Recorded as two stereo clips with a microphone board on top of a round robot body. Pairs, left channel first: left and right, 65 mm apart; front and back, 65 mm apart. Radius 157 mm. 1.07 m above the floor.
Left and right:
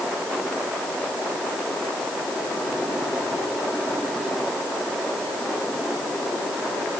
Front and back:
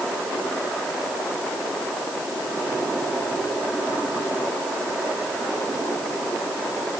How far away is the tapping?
No tapping in this recording.